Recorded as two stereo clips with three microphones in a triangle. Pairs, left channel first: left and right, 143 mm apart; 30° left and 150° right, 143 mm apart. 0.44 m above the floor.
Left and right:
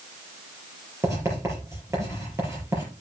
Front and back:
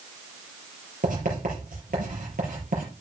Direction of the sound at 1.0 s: 160° right.